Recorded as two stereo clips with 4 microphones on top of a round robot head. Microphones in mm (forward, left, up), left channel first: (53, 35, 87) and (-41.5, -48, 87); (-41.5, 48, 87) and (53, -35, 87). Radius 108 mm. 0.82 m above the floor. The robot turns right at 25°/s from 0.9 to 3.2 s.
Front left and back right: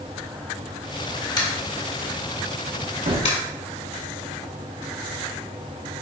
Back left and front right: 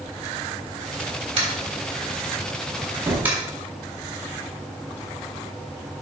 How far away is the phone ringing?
No phone ringing in this recording.